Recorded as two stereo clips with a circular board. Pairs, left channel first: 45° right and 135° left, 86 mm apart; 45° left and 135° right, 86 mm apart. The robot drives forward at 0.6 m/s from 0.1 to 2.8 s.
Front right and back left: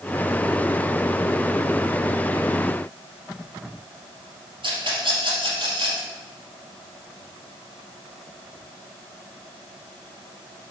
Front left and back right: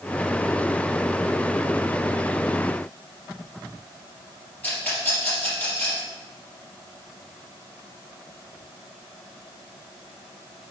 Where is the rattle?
115° left, 3 m.